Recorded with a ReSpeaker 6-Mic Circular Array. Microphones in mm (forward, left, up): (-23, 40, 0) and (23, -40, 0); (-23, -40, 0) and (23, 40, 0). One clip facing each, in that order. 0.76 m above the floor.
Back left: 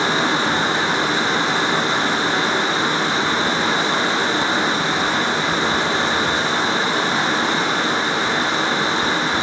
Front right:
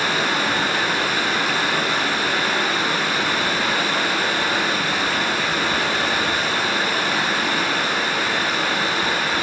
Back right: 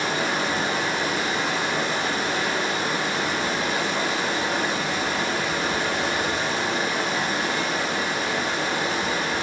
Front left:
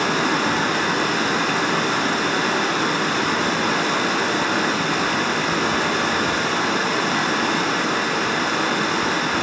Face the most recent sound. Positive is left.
turn(degrees=55)